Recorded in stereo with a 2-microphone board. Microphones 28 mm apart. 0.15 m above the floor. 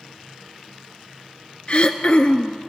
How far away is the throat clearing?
About 0.6 m.